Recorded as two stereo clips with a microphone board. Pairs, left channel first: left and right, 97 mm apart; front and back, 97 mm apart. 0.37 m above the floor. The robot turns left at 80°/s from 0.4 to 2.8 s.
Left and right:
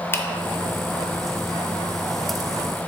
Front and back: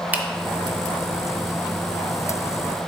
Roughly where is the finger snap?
Behind left.